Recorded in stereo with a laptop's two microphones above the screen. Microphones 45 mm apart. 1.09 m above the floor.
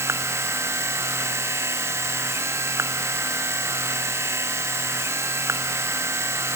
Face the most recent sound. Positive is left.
turn(degrees=-80)